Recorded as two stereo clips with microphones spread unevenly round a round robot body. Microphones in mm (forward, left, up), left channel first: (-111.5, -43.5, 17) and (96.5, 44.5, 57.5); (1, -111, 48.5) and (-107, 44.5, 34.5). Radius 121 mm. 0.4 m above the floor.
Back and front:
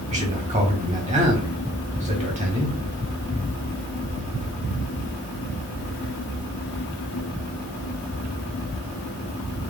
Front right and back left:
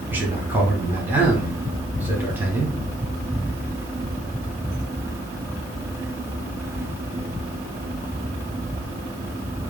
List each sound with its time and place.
0.1 s a man speaking: 65° left, 1.2 m